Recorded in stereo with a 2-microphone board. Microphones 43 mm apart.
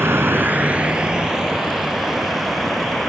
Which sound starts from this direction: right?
A vehicle, at 0.0 s.